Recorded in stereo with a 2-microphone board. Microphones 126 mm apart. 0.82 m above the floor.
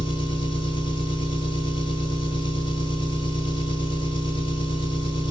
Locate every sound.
0.0 s an engine running: 40° left (ahead or behind), 1.5 m